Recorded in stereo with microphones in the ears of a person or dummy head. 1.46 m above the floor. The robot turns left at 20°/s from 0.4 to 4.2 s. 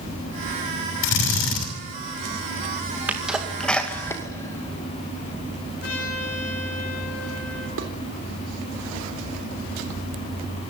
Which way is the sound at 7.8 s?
70° right (ahead or behind).